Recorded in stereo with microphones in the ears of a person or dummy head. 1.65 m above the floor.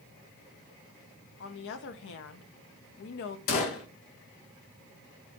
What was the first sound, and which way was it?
A woman speaking, 60° left (ahead or behind).